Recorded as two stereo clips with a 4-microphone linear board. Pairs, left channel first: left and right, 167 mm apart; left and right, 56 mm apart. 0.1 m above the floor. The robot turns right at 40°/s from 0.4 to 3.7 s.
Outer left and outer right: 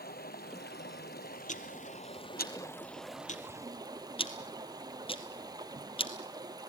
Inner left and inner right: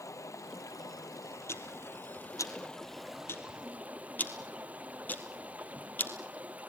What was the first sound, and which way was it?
Running water, 70° left.